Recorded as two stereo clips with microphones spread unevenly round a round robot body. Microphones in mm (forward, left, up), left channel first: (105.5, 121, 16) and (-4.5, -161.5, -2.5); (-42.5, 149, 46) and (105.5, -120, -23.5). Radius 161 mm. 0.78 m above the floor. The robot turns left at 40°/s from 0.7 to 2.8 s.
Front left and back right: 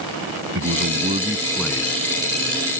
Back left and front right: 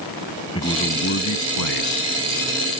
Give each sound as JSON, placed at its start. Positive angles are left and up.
{"t": 0.6, "sound": "a man speaking", "azimuth_deg": -165}